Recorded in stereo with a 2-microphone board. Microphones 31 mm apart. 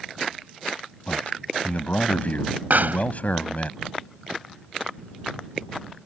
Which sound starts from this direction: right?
A pop, at 2.7 s.